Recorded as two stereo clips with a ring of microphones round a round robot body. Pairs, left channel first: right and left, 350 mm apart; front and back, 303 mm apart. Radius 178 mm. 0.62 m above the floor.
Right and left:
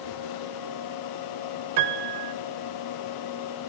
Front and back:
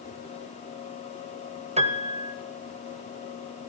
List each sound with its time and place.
1.8 s a piano: 110° left, 1.8 m